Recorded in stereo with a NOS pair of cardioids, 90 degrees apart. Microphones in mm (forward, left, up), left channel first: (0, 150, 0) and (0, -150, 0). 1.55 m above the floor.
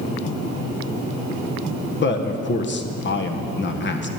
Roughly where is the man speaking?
Ahead left.